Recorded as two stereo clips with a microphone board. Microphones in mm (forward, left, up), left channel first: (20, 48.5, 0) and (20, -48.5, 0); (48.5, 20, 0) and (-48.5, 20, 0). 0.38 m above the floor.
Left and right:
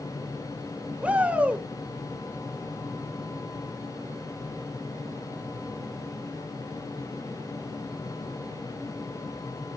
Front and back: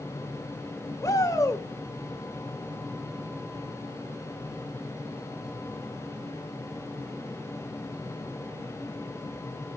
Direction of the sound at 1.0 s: 20° right.